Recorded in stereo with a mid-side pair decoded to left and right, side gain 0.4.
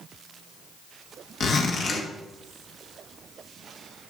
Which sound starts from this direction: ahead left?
A zipper, at 1.4 s.